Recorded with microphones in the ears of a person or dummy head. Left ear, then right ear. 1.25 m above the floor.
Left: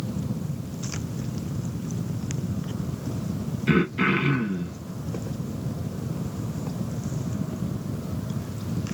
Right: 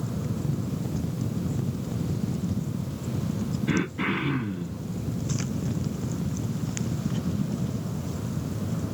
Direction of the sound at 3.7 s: 80° left.